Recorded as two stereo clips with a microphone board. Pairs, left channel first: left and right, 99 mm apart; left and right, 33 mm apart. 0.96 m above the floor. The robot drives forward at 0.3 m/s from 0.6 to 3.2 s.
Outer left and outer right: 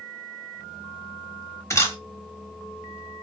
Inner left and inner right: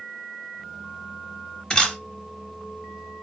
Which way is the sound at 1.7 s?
25° left (ahead or behind).